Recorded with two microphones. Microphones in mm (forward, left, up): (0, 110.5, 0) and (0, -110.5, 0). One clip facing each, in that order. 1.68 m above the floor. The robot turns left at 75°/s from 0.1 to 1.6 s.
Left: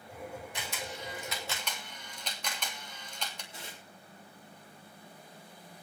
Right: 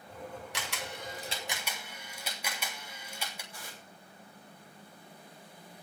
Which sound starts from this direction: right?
A camera shutter, at 0.5 s.